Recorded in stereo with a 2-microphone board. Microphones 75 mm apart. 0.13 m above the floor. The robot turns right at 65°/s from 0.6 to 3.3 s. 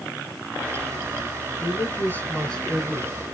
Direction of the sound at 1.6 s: 95° left.